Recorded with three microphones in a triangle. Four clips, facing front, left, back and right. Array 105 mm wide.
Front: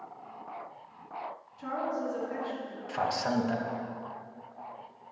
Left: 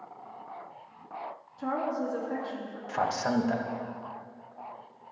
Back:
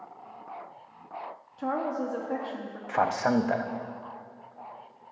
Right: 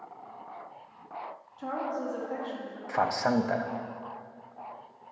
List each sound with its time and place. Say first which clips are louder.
1.6 s a woman speaking: left 2 dB, back 3 dB; 165° left, 1.9 m
2.9 s a man speaking: right 2 dB, back 5 dB; 160° right, 0.8 m